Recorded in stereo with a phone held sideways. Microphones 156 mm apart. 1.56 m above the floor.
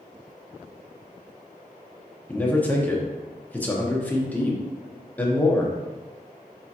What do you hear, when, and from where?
2.3 s a man speaking: 10° left (ahead or behind), 0.9 m